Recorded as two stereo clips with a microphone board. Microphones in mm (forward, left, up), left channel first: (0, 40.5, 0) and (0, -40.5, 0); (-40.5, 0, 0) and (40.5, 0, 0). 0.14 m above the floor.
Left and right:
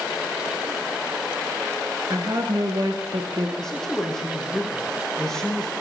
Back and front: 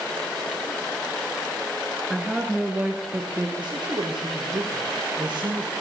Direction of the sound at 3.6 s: 5° left.